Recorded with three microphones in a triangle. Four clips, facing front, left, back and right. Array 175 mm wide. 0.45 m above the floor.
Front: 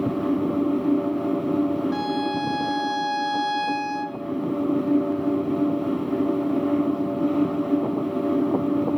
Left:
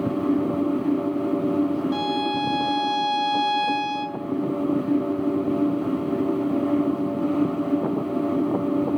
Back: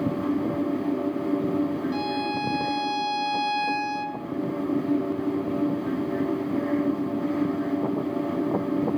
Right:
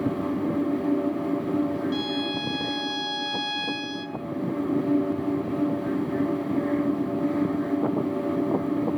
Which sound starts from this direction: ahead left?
A violin, at 1.9 s.